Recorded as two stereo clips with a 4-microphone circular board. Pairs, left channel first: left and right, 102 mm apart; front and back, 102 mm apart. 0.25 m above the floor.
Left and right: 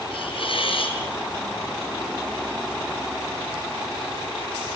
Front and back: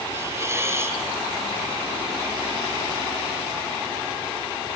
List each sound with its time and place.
0.1 s a hiss: 120° left, 4 m